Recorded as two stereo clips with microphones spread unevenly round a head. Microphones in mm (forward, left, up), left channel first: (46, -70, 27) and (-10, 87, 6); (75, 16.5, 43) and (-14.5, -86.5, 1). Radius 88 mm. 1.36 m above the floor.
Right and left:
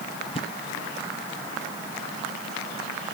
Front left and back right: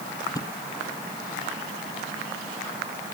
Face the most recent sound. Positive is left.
turn(degrees=-15)